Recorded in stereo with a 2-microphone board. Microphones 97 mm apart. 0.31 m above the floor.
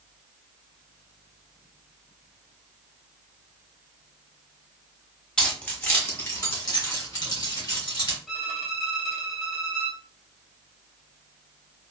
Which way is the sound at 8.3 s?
5° left (ahead or behind).